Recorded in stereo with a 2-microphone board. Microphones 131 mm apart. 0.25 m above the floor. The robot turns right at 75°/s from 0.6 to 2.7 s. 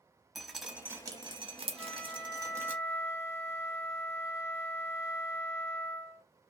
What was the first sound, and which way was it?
Dripping, centre (ahead or behind).